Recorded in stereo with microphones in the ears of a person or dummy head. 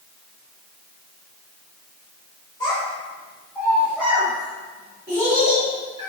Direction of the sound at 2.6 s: 25° left (ahead or behind).